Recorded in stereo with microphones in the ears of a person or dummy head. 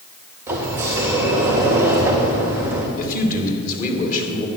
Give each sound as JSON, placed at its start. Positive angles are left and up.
{"t": 0.5, "sound": "a sliding door", "side_deg": -10, "distance_m": 1.9}
{"t": 3.0, "sound": "a man speaking", "side_deg": 45, "distance_m": 3.0}